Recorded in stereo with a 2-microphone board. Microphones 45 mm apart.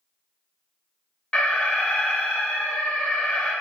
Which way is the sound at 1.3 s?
25° left (ahead or behind).